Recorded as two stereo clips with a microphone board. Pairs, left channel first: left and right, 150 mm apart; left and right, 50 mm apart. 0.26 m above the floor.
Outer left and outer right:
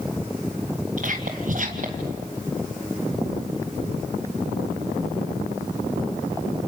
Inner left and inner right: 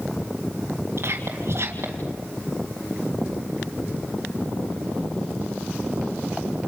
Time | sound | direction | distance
1.0 | whispering | 55° right (ahead or behind) | 2 m